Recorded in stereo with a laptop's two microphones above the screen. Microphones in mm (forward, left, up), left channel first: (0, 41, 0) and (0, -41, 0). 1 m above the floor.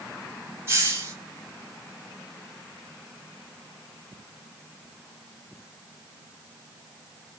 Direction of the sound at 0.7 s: 35° right (ahead or behind).